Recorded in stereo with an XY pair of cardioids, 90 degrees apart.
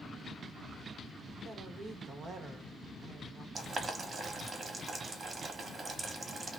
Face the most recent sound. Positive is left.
turn(degrees=-45)